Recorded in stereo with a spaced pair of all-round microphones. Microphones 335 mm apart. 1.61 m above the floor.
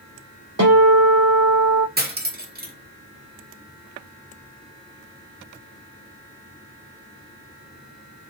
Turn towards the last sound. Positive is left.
turn(degrees=-30)  # may be behind; listen again after turning